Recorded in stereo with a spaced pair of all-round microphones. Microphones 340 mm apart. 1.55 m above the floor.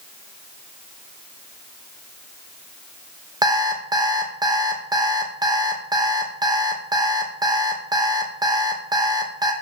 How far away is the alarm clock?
About 0.7 m.